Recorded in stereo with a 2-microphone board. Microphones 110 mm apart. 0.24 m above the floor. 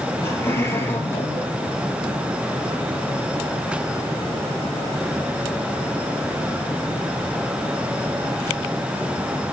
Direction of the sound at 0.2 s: 20° left (ahead or behind).